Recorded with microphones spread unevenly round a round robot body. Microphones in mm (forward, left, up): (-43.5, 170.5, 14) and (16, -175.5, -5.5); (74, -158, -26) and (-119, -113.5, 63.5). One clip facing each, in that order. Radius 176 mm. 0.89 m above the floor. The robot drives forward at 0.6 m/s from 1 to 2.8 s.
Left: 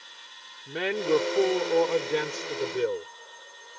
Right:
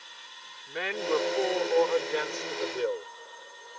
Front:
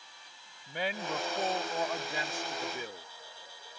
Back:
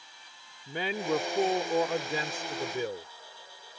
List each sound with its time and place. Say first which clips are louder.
0.7 s a man speaking: left 5 dB, back 6 dB; 150° left; by 3.1 s 160° left